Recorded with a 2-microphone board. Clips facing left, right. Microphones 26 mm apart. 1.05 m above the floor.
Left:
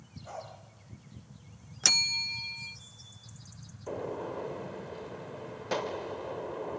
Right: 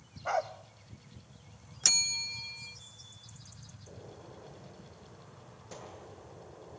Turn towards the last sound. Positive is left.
turn(degrees=65)  # may be behind; listen again after turning